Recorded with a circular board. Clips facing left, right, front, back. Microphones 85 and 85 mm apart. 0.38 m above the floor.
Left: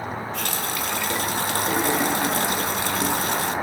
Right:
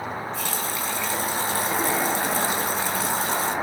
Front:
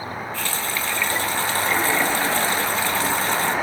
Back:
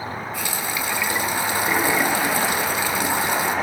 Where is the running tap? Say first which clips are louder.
Left 1 dB, even; 105° left, 3 m.